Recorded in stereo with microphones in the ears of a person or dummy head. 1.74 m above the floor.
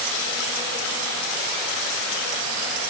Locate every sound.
Only background noise.